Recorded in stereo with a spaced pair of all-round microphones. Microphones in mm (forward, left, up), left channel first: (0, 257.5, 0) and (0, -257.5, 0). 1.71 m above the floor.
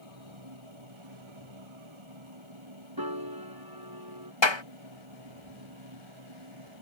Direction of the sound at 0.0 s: 65° right (ahead or behind).